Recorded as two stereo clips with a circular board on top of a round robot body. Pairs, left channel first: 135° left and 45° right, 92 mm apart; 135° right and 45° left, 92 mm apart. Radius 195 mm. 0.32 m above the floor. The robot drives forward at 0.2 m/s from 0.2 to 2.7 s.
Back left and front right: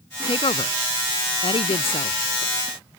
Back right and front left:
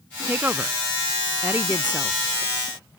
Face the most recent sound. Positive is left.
turn(degrees=120)